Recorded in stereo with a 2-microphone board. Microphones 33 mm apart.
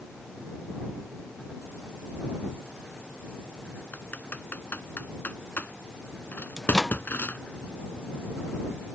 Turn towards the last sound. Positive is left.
turn(degrees=10)  # may be behind; listen again after turning